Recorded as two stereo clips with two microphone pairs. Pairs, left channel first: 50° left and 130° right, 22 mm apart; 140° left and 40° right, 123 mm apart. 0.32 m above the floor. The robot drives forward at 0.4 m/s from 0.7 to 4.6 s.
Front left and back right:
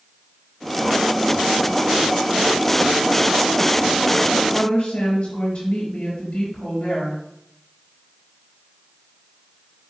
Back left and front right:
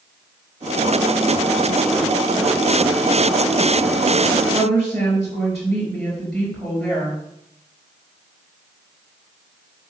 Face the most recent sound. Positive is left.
turn(degrees=55)